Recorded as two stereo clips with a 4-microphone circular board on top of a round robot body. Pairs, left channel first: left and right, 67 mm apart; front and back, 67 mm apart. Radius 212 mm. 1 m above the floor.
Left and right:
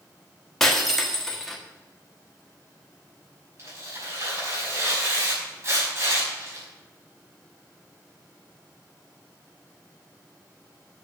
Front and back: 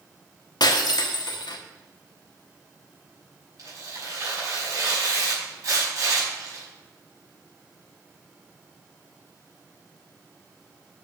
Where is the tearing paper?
145° right, 5.5 m.